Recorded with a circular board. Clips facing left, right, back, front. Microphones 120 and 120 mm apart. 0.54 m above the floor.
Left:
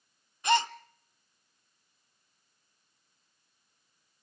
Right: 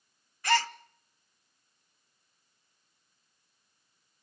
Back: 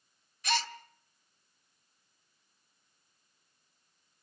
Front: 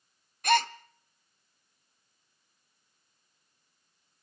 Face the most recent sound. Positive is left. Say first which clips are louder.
# left 1 dB, front 8 dB
turn(degrees=20)